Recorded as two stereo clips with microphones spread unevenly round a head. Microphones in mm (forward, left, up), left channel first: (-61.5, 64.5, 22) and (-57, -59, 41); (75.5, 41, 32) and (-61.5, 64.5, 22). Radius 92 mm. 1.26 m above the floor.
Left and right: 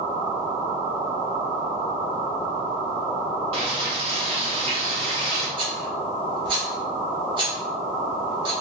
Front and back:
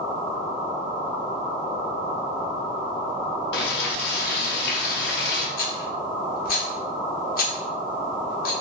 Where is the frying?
30° right, 0.7 m.